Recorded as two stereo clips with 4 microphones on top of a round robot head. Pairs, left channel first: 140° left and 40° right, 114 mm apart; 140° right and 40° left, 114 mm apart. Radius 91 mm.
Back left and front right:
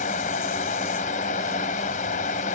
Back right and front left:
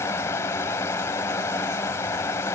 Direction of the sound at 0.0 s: 155° left.